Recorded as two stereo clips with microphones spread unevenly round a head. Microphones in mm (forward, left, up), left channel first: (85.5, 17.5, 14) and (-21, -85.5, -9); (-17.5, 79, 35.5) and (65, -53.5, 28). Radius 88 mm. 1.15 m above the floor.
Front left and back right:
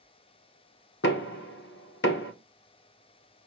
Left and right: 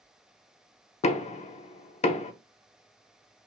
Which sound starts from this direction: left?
Knocking, at 1.0 s.